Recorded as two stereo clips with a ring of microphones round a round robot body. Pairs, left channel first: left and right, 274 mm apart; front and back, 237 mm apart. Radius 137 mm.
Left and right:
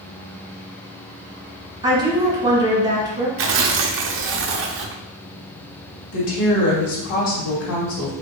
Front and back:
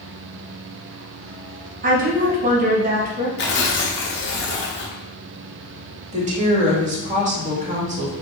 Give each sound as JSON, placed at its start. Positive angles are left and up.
{"t": 1.8, "sound": "a woman speaking", "azimuth_deg": -155, "distance_m": 0.9}
{"t": 3.4, "sound": "tearing paper", "azimuth_deg": -50, "distance_m": 0.6}
{"t": 6.1, "sound": "a woman speaking", "azimuth_deg": 120, "distance_m": 1.9}